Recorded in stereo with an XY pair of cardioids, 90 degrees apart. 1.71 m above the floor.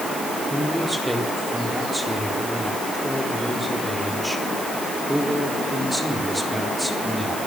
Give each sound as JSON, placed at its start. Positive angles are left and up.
{"t": 0.5, "sound": "a man speaking", "azimuth_deg": 0, "distance_m": 4.0}